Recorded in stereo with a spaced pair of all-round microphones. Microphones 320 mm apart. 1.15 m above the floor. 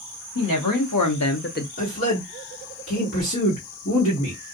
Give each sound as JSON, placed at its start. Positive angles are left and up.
{"t": 0.3, "sound": "a woman speaking", "side_deg": 80, "distance_m": 1.1}
{"t": 1.8, "sound": "a man speaking", "side_deg": 45, "distance_m": 1.7}